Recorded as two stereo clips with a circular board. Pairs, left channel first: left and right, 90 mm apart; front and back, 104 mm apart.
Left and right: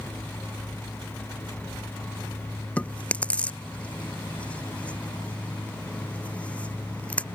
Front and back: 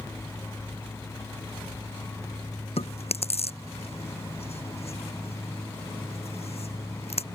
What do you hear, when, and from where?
2.8 s chewing: 15° left